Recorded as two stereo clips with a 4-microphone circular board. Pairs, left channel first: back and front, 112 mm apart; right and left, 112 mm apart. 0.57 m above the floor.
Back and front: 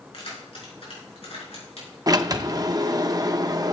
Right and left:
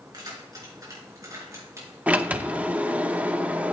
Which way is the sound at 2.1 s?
20° left.